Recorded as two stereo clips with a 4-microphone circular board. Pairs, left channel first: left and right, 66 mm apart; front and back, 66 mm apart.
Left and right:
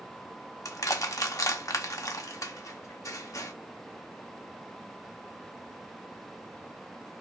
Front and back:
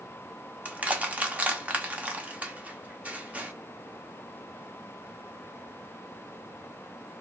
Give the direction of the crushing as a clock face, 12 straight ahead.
8 o'clock.